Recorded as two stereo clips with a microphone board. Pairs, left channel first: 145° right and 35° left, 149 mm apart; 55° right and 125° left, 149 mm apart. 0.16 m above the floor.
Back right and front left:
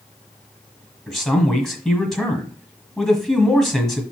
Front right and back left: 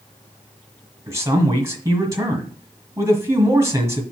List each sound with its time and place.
1.1 s a man speaking: 130° left, 1.5 m